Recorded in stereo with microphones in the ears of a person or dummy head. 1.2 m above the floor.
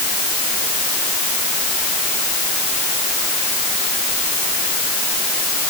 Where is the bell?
I don't hear a bell.